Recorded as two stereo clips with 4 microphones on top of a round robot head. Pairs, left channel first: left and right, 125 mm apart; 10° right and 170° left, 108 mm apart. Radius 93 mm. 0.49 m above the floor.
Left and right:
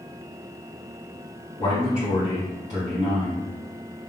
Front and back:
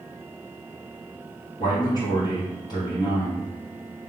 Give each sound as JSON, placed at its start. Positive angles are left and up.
{"t": 1.6, "sound": "a man speaking", "azimuth_deg": 35, "distance_m": 1.7}